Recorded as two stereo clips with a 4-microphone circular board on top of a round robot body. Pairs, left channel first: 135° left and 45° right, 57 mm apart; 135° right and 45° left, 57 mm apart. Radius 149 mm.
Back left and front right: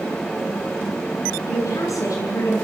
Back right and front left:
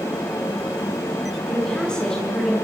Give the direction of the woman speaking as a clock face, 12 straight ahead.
7 o'clock.